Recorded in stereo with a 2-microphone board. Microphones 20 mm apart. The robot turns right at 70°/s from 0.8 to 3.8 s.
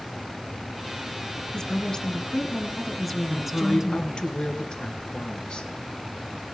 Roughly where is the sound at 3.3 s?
Ahead left.